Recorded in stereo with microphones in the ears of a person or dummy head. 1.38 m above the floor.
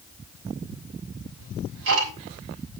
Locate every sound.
1.4 s ticking: 70° right (ahead or behind), 4 m